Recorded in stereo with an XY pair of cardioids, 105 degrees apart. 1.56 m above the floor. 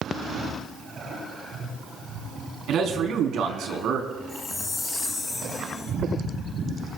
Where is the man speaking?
70° right, 4 m.